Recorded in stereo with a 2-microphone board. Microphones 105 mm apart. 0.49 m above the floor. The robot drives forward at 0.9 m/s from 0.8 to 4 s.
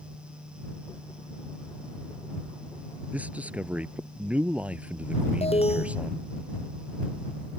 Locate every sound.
3.1 s a man speaking: 15° right (ahead or behind); by 6.3 s 10° right (ahead or behind)
5.4 s an alarm: 75° left (ahead or behind)